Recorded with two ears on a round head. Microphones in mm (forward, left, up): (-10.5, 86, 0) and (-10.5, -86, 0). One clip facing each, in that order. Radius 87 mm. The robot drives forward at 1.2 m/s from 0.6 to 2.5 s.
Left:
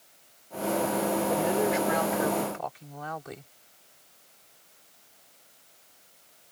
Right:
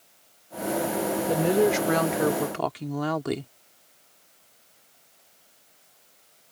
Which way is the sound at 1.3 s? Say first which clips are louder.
Right 8 dB; 45° right (ahead or behind).